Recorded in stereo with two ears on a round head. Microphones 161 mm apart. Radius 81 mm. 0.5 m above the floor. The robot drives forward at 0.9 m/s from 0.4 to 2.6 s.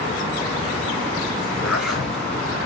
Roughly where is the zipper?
Centre.